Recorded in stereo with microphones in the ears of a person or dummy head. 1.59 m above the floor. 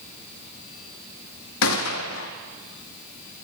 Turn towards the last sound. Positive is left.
turn(degrees=70)  # may be behind; listen again after turning